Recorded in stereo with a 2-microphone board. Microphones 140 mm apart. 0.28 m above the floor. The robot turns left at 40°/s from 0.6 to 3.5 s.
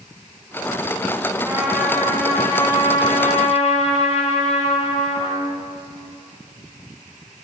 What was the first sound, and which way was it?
A trumpet, 165° right.